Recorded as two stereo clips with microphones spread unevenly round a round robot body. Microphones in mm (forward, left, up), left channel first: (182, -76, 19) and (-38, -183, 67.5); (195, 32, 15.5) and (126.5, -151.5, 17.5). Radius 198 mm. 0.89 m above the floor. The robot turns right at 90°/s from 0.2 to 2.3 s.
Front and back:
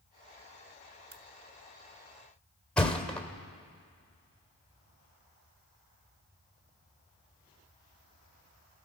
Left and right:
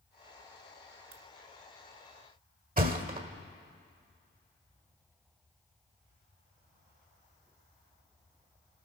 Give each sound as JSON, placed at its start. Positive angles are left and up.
{"t": 1.1, "sound": "a crack", "azimuth_deg": -100, "distance_m": 1.3}
{"t": 2.8, "sound": "a thud", "azimuth_deg": -60, "distance_m": 1.9}